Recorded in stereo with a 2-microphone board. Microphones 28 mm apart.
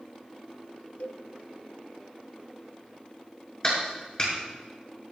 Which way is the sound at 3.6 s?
25° left (ahead or behind).